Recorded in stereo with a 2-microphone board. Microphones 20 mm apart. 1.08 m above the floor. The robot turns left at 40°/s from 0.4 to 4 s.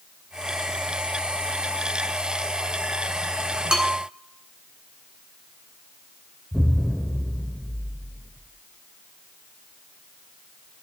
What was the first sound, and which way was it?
A bell, 55° right (ahead or behind).